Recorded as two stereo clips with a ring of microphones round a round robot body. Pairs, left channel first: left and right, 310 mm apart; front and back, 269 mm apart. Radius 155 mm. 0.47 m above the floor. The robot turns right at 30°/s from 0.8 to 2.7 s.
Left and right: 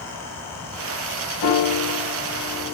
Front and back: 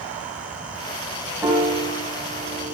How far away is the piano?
About 4 m.